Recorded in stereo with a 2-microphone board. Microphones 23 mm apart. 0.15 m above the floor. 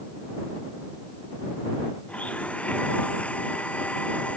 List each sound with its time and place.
2.1 s a blender: 75° left (ahead or behind)